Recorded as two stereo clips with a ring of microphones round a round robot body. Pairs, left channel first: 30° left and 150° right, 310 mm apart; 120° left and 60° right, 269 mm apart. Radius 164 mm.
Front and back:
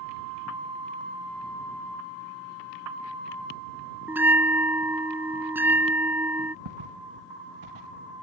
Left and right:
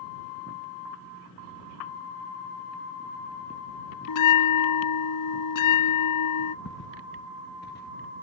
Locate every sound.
4.1 s a bell: 125° left
6.7 s footsteps: 175° left; by 8.0 s straight behind